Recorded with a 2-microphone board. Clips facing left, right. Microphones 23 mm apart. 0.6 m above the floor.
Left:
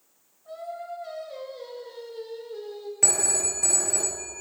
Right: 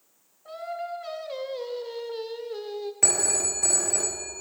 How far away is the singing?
About 0.7 m.